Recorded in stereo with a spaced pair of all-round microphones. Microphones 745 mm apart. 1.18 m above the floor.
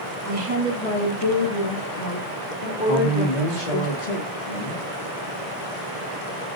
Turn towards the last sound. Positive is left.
turn(degrees=80)